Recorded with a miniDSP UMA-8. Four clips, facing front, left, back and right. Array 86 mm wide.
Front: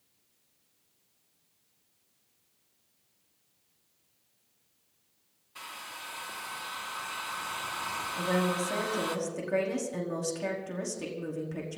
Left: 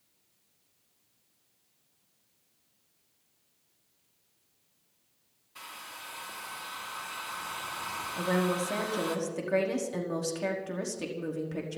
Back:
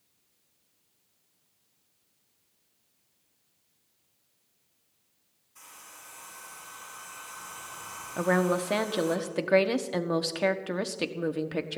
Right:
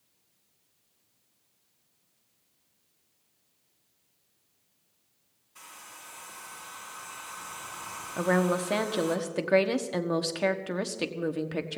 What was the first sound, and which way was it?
A hair dryer, 25° left.